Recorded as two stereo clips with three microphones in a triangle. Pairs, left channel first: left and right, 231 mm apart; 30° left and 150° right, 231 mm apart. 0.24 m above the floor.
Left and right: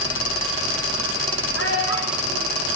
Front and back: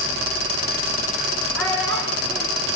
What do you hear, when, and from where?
1.6 s a child speaking: 115° left, 8 m